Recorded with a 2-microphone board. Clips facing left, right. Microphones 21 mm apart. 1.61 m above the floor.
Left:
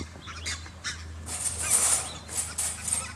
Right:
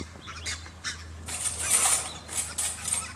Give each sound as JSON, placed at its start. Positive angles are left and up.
{"t": 1.3, "sound": "cutlery clinking", "side_deg": -65, "distance_m": 1.5}